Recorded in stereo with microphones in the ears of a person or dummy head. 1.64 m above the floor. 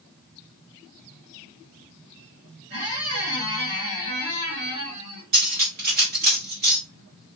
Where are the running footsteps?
I don't hear running footsteps.